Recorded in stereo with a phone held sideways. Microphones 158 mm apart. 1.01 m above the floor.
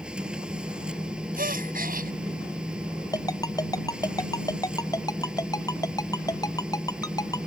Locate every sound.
0.0 s a machine running: 5° right (ahead or behind)
1.4 s a gasp: 65° right (ahead or behind)
3.1 s a ringtone: 25° left (ahead or behind)